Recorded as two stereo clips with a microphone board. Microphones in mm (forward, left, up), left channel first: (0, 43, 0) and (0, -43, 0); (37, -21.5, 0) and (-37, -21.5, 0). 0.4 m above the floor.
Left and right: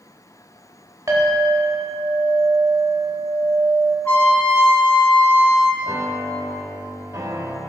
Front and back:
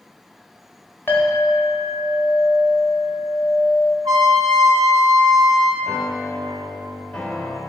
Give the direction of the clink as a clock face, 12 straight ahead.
2 o'clock.